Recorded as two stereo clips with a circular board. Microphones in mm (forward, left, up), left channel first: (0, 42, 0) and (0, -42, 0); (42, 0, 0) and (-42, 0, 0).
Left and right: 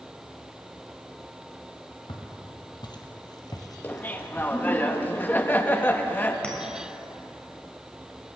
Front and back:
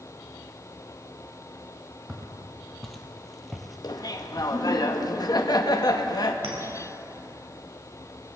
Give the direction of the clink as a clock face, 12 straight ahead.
6 o'clock.